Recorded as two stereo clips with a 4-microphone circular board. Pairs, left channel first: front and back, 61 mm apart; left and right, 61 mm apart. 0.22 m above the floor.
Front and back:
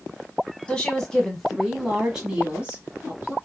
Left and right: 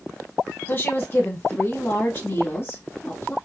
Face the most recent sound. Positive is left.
turn(degrees=125)